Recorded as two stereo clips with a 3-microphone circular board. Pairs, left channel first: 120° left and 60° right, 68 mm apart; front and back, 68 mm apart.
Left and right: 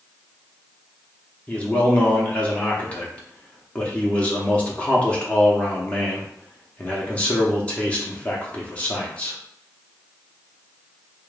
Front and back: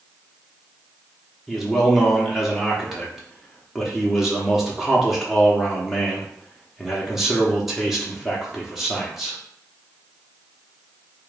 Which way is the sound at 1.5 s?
100° left.